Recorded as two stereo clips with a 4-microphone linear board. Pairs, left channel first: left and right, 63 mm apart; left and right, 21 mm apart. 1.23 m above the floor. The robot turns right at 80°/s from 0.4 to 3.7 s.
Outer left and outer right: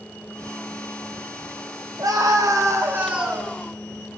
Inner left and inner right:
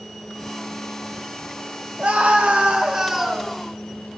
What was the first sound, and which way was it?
A scream, 110° right.